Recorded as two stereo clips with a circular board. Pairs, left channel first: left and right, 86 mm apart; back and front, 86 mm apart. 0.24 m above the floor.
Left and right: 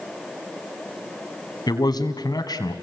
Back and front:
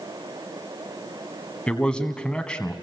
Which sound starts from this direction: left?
A man speaking, at 1.7 s.